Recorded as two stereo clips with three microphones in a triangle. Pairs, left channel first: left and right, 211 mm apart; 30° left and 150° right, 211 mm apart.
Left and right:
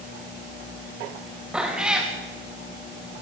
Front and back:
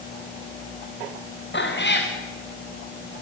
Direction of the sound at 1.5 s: 5° right.